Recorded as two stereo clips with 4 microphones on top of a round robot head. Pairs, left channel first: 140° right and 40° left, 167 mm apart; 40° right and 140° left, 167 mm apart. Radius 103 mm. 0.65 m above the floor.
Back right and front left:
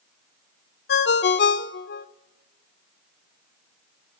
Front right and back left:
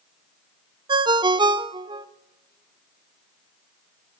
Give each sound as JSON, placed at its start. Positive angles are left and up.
{"t": 0.9, "sound": "a ringtone", "azimuth_deg": -155, "distance_m": 1.1}